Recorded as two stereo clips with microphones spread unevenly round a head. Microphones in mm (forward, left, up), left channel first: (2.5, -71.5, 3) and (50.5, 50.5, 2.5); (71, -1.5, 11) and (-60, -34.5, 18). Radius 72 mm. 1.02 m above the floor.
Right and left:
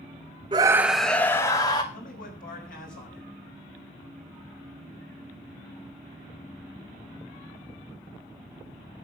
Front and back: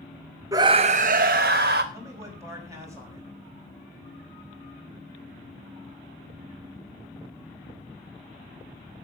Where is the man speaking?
100° right, 6 m.